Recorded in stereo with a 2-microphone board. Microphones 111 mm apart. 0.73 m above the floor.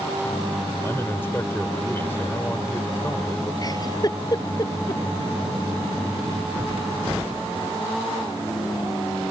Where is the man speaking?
20° left (ahead or behind).